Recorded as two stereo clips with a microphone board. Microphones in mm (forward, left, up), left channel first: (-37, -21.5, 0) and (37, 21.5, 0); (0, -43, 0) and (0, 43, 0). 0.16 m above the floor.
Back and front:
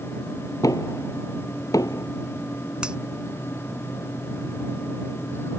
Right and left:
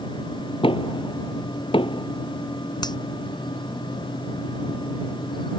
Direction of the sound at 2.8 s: 50° right.